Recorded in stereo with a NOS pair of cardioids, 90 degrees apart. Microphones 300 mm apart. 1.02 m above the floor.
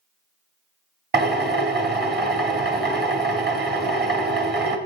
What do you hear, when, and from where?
1.1 s a drill: 30° right, 1.7 m